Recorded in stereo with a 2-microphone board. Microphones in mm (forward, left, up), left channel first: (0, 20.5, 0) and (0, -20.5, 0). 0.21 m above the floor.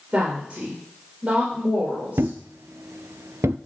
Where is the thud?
85° right, 0.5 m.